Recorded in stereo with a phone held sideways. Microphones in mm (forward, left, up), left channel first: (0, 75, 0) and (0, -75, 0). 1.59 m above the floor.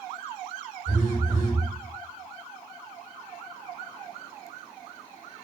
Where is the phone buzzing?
15° right (ahead or behind), 1.3 m.